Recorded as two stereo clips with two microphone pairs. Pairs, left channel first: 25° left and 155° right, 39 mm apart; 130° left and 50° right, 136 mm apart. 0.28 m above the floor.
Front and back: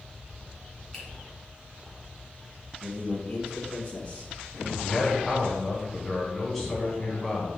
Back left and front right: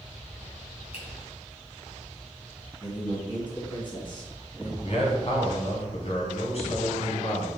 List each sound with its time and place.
0.9 s a finger snap: 95° left, 3 m
2.8 s a man speaking: 80° left, 2.5 m
4.8 s a man speaking: 105° left, 2.5 m